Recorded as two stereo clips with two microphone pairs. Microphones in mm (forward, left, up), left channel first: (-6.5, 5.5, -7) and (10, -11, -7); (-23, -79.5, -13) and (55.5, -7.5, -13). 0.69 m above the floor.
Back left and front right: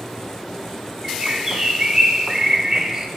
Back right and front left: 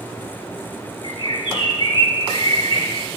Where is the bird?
105° right, 2 m.